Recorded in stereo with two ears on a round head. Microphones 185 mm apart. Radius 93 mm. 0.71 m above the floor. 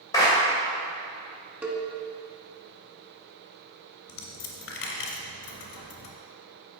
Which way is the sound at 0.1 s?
15° left (ahead or behind).